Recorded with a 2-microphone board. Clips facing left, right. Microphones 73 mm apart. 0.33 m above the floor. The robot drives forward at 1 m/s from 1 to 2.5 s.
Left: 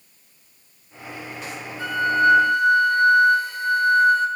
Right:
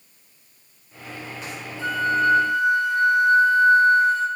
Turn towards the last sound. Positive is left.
turn(degrees=85)